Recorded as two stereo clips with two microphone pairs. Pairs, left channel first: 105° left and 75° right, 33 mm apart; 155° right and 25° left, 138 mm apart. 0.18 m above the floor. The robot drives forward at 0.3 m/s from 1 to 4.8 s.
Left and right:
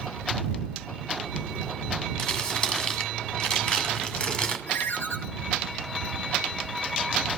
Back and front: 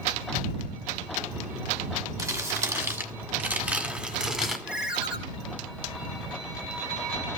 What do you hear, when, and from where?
2.2 s crumpling: 60° left, 1.9 m; by 4.6 s 105° left, 1.8 m
4.7 s a ringtone: 105° left, 1.5 m